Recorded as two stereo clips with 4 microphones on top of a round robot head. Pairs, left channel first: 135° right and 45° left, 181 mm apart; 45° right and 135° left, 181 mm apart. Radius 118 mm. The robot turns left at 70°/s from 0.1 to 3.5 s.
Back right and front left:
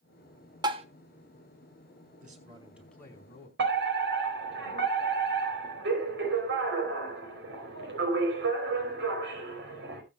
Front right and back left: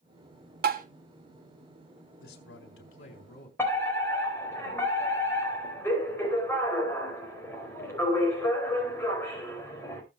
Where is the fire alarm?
35° left, 4.5 m.